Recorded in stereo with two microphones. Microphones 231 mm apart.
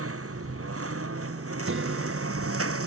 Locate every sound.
0.0 s a lawn mower: 90° right; by 2.9 s 85° right
1.6 s a guitar: 65° right (ahead or behind)